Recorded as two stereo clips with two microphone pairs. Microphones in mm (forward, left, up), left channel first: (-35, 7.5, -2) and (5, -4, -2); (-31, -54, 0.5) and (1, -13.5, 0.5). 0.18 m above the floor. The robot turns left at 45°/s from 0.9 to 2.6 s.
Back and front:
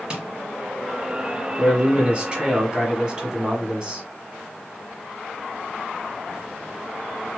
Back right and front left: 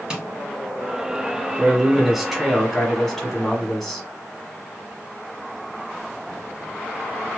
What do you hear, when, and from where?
0.1 s tapping: straight ahead, 0.9 m
1.6 s a man speaking: 5° right, 1.2 m; by 4.0 s 50° right, 1.2 m